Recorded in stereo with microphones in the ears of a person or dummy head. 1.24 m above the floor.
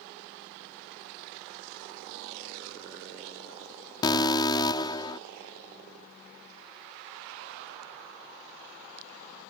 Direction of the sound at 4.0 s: 25° left (ahead or behind).